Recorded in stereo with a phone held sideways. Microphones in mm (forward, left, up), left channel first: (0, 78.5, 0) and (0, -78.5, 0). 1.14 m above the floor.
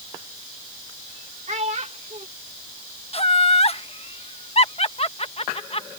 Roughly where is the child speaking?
Right.